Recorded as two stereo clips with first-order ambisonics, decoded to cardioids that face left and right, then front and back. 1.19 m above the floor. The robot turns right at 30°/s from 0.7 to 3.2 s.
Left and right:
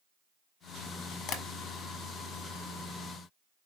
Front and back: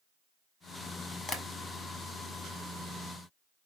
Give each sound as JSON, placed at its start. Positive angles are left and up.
{"t": 1.3, "sound": "tapping", "azimuth_deg": 65, "distance_m": 0.7}